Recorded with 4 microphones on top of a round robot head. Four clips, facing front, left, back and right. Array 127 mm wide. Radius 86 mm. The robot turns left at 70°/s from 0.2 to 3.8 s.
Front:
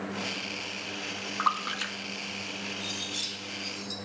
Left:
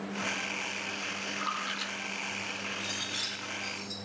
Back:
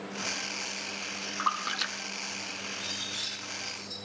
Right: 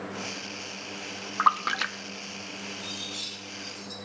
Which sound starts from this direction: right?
A splash, at 1.4 s.